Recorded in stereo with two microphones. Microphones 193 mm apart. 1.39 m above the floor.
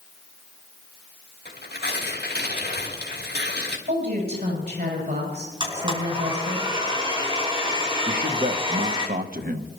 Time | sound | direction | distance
1.4 | tearing paper | 60° left (ahead or behind) | 2.5 m
3.9 | a woman speaking | 65° right (ahead or behind) | 8 m
5.6 | a blender | 25° right (ahead or behind) | 5.5 m
8.1 | a man speaking | 50° right (ahead or behind) | 1.1 m